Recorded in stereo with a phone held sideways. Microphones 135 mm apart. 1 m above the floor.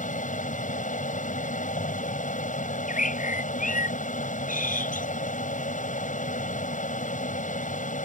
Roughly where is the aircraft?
Left.